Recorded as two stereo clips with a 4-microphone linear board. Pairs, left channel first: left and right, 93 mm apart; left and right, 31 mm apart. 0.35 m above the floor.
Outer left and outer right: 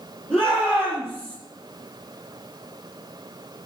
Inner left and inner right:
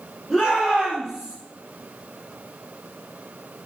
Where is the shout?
Centre (ahead or behind), 8.5 m.